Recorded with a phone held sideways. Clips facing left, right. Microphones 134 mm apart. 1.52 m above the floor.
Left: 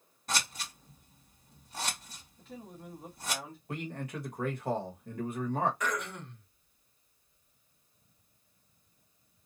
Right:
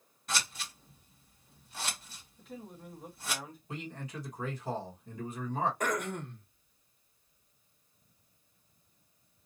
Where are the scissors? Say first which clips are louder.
Left 1 dB; 40° left (ahead or behind), 1.9 m.